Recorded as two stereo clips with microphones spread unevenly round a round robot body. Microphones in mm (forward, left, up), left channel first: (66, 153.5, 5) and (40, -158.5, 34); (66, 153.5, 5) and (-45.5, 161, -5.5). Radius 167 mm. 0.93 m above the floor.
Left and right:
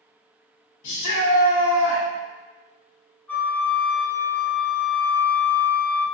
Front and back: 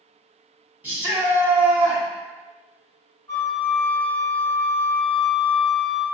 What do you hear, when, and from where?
0.8 s a shout: 105° left, 1.6 m
3.3 s a flute: 5° right, 0.6 m